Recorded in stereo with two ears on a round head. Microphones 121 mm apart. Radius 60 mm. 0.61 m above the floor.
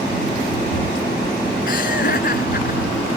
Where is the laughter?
70° left (ahead or behind).